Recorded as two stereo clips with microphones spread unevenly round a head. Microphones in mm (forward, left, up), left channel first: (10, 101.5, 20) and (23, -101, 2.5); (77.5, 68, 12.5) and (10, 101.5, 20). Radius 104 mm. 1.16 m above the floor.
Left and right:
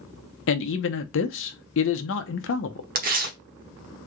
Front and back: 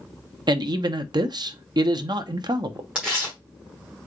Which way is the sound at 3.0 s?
130° right.